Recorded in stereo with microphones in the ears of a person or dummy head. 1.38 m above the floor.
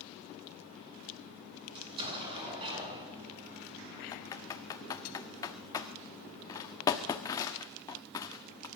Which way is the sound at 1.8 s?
30° right (ahead or behind).